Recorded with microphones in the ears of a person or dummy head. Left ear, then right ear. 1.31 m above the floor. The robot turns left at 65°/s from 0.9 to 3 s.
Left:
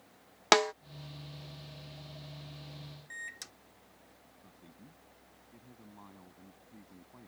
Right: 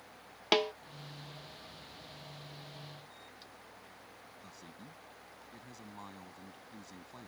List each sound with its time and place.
0.5 s a snare drum: 60° left (ahead or behind)
3.1 s a microwave: 70° left (ahead or behind)
4.4 s a man speaking: 80° right